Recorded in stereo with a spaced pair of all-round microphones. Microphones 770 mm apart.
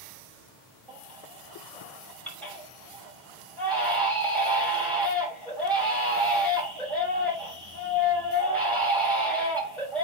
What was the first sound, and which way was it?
A baby crying, centre (ahead or behind).